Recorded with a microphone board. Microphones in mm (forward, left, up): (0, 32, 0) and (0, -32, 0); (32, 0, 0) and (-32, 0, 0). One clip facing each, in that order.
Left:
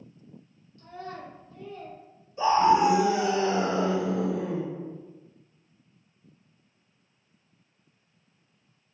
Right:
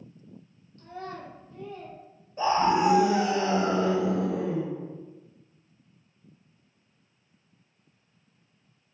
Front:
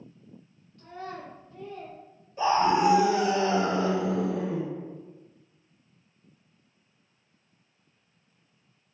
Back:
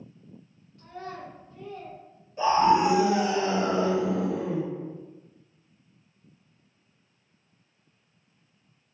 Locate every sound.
0.8 s a child speaking: 90° right, 1.2 m; by 2.0 s 35° right, 1.6 m
2.4 s a scream: 90° right, 1.8 m